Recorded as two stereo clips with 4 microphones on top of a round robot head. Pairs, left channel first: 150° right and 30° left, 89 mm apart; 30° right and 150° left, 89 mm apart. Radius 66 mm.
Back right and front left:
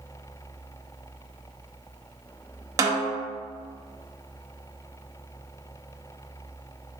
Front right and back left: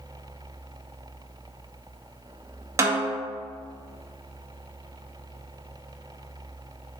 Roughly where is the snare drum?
Left.